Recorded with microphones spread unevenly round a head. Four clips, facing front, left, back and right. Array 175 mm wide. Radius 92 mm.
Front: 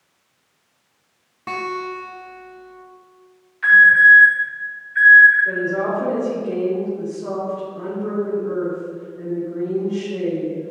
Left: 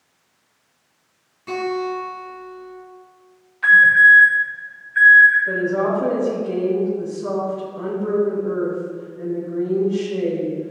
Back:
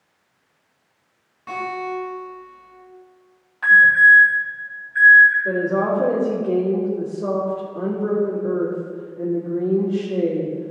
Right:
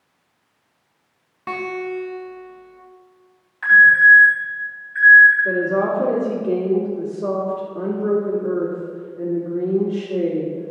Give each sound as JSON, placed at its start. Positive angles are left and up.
{"t": 1.5, "sound": "a guitar", "azimuth_deg": -40, "distance_m": 2.0}
{"t": 3.6, "sound": "an alarm", "azimuth_deg": -165, "distance_m": 3.0}
{"t": 5.5, "sound": "a woman speaking", "azimuth_deg": -125, "distance_m": 3.0}